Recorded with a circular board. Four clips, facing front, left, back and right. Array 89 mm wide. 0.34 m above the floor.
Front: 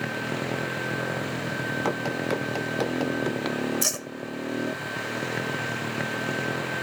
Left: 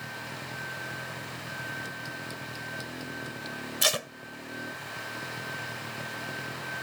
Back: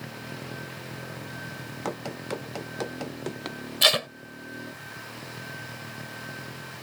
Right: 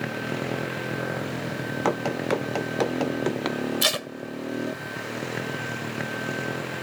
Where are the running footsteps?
75° right.